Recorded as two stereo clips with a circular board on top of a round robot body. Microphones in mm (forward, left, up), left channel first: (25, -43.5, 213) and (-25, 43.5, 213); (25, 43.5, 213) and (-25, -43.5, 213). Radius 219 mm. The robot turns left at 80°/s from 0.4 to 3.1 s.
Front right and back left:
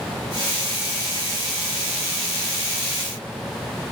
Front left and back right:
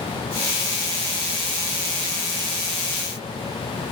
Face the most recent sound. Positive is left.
No sound to turn to.